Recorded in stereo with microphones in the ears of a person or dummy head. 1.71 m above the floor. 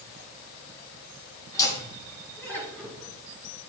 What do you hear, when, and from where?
1.5 s laughter: 15° left (ahead or behind), 3.5 m; by 3.1 s centre (ahead or behind), 4.5 m